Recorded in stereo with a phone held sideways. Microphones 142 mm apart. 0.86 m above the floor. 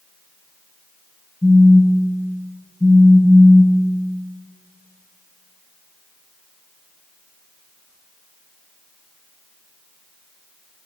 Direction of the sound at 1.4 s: 30° left (ahead or behind).